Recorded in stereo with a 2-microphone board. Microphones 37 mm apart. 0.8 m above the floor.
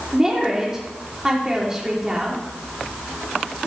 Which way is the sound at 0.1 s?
15° right (ahead or behind).